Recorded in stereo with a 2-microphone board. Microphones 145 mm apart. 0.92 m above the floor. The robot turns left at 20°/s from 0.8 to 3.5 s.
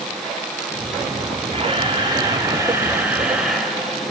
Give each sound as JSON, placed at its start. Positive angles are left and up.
{"t": 1.5, "sound": "a camera shutter", "azimuth_deg": -140, "distance_m": 4.0}